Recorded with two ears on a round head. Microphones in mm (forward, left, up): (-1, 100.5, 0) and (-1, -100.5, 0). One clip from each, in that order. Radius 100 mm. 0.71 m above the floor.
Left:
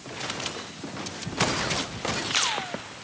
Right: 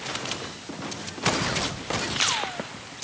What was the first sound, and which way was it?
Only background noise.